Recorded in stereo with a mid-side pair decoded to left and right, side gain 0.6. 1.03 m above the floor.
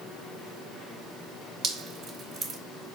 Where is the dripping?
50° right, 1.0 m.